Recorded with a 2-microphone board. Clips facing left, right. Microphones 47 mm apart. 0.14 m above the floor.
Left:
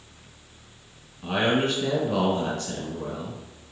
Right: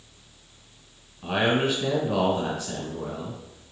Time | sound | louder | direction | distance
1.2 | a man speaking | even | 10° right (ahead or behind) | 1.3 m